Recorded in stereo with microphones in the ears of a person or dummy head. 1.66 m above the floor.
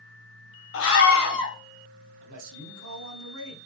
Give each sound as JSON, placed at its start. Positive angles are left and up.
{"t": 0.7, "sound": "a scream", "side_deg": 70, "distance_m": 1.4}
{"t": 2.2, "sound": "a man speaking", "side_deg": -70, "distance_m": 0.9}